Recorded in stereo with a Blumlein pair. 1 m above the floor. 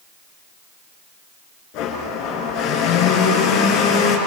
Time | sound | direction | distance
1.7 | a blender | 40° left | 6 m